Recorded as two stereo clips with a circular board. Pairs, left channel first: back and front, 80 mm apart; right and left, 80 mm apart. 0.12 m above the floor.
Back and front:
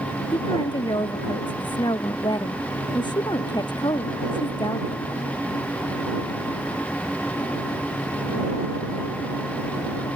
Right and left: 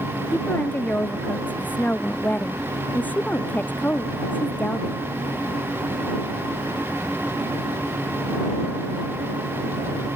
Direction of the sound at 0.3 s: 160° right.